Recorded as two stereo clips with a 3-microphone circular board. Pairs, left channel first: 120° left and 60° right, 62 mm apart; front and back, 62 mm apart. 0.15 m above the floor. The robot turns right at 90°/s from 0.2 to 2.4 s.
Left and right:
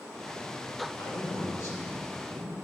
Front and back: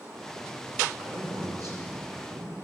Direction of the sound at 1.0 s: 105° left.